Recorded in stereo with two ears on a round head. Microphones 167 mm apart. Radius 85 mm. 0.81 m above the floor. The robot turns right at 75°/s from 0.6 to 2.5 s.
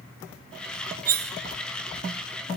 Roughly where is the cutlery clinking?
Right.